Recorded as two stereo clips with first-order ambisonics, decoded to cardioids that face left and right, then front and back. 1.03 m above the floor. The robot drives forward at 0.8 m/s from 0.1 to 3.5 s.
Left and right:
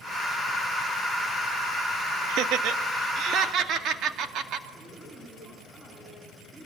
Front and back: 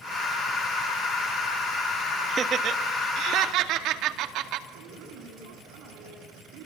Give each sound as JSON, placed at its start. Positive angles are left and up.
{"t": 2.3, "sound": "laughter", "azimuth_deg": -115, "distance_m": 1.4}
{"t": 4.7, "sound": "a man speaking", "azimuth_deg": -170, "distance_m": 8.5}